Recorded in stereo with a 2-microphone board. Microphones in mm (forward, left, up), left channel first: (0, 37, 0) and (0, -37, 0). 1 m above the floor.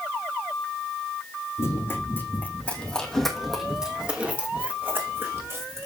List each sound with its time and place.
1.6 s running footsteps: 40° left (ahead or behind), 3.5 m; by 5.8 s 40° right (ahead or behind), 4 m